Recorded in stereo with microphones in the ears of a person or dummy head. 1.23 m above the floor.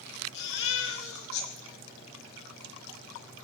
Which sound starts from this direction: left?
A baby crying, at 0.3 s.